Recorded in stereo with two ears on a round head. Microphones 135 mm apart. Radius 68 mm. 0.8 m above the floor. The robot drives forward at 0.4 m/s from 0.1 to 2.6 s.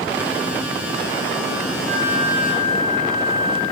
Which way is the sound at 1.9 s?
70° right (ahead or behind).